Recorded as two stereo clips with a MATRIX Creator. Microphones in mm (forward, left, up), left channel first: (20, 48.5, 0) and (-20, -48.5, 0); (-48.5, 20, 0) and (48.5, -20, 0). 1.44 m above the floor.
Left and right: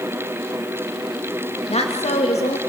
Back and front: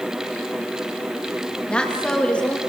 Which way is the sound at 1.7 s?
75° left.